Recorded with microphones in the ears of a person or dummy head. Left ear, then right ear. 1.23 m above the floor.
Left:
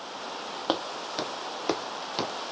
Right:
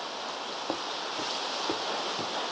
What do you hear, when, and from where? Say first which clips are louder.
0.7 s footsteps: left 5 dB; 50° left (ahead or behind); by 2.3 s 60° left (ahead or behind)